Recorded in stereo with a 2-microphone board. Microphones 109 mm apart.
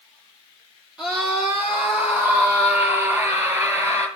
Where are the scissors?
No scissors in this recording.